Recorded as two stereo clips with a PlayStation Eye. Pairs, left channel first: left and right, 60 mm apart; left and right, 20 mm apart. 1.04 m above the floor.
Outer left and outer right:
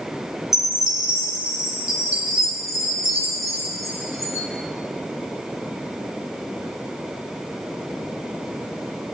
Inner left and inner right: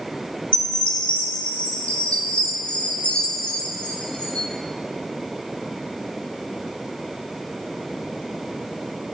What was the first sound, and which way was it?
A chime, 60° left (ahead or behind).